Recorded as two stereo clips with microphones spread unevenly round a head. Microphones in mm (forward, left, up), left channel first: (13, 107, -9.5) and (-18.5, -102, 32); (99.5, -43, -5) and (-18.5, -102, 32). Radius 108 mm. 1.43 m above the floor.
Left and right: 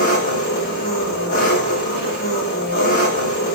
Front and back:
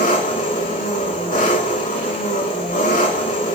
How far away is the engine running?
About 7.5 m.